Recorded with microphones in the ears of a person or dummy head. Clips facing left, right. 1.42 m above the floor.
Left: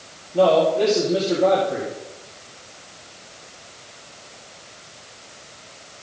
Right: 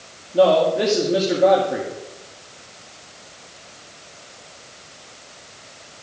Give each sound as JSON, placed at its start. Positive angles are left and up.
{"t": 0.3, "sound": "a man speaking", "side_deg": -15, "distance_m": 2.5}